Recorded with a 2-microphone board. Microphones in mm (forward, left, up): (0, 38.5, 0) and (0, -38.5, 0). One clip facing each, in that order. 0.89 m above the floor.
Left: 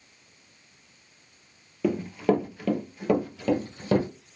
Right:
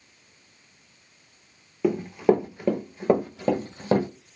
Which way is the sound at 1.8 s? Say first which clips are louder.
Right 3 dB; 15° right (ahead or behind).